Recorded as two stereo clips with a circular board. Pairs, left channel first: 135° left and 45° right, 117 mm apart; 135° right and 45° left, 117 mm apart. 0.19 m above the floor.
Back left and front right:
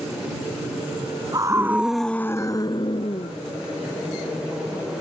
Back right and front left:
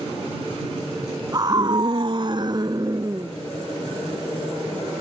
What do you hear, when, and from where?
1.3 s a scream: straight ahead; by 3.3 s 105° left